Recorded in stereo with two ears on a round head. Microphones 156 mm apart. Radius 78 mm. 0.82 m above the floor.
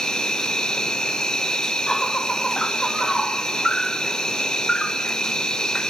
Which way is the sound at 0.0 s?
5° left (ahead or behind).